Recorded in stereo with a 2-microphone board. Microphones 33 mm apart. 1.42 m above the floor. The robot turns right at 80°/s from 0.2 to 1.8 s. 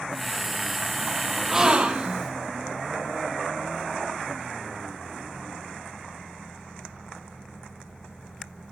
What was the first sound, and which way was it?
A gasp, 10° right (ahead or behind).